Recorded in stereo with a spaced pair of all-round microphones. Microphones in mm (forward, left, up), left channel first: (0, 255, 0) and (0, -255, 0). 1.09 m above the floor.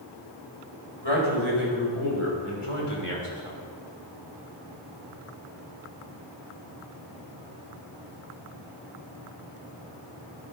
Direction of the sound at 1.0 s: 60° left (ahead or behind).